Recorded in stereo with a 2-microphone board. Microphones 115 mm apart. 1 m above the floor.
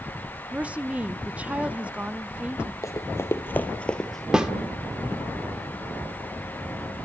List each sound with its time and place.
0.5 s a woman speaking: 10° right (ahead or behind), 0.8 m
2.8 s running footsteps: 25° left (ahead or behind), 2 m; by 4.2 s centre (ahead or behind), 1.5 m
4.3 s a snare drum: 5° right (ahead or behind), 1.6 m